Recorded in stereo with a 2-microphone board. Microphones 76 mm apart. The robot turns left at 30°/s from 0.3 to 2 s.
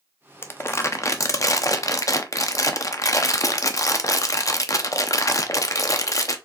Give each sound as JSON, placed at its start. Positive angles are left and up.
{"t": 0.4, "sound": "crumpling", "azimuth_deg": 135, "distance_m": 0.6}